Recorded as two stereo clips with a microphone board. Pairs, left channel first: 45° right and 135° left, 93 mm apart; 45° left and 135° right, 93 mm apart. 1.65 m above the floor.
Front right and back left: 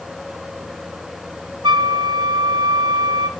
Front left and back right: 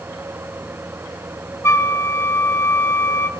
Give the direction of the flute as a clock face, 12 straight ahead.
8 o'clock.